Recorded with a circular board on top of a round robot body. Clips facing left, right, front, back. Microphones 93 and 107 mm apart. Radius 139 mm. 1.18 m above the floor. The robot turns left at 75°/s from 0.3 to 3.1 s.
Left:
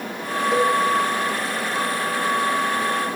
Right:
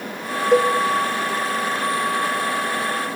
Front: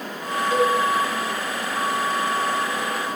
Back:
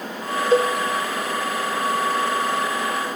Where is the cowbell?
120° right, 2.5 m; by 0.7 s 135° right, 2.5 m.